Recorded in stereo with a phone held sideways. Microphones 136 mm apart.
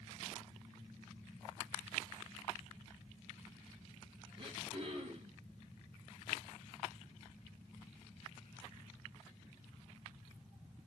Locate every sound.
4.4 s throat clearing: 45° right (ahead or behind), 3 m